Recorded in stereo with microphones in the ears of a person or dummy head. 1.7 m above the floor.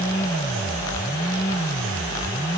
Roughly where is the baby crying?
I don't hear a baby crying.